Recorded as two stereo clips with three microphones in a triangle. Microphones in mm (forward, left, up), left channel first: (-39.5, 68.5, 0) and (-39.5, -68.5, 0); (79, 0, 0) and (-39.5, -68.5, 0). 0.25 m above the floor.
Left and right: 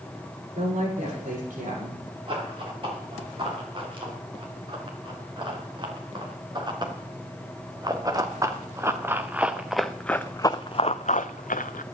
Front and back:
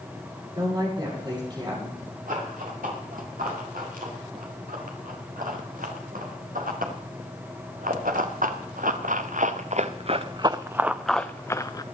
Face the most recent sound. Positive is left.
turn(degrees=90)